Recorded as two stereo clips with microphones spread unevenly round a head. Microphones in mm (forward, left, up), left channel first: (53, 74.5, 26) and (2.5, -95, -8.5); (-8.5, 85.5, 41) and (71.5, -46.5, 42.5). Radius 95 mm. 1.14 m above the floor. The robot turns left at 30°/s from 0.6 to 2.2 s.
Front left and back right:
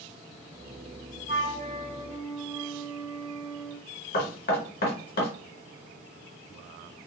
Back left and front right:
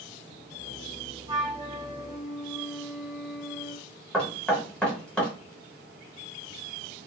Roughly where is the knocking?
Ahead left.